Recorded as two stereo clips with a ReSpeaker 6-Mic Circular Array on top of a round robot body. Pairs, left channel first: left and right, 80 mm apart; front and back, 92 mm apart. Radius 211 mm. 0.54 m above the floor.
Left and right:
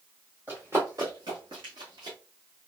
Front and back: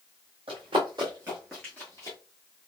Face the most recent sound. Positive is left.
turn(degrees=-50)